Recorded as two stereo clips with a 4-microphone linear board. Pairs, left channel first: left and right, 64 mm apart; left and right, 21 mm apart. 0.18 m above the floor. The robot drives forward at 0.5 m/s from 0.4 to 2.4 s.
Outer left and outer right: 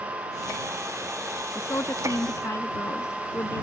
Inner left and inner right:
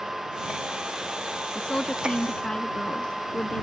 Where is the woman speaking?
45° left (ahead or behind); by 3.6 s 50° left (ahead or behind).